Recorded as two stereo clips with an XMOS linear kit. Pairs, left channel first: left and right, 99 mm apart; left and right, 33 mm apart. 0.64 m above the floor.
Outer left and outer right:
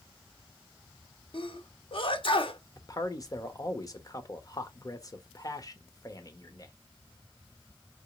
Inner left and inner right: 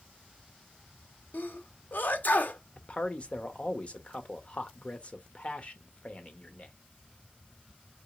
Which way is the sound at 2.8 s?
40° left (ahead or behind).